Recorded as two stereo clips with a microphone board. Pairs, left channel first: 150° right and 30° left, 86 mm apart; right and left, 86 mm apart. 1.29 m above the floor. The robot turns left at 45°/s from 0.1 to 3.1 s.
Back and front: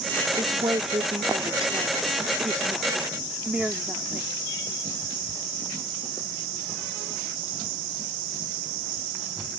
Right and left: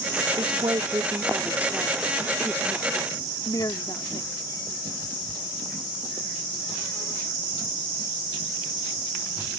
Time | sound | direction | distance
0.4 | a woman speaking | 75° left | ?